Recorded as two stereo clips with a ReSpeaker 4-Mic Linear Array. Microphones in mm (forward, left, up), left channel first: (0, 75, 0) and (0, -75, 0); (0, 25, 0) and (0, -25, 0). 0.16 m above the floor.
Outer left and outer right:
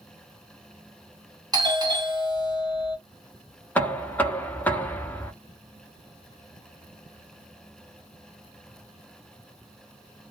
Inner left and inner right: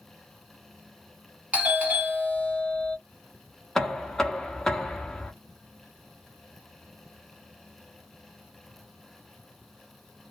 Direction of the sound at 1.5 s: 25° right (ahead or behind).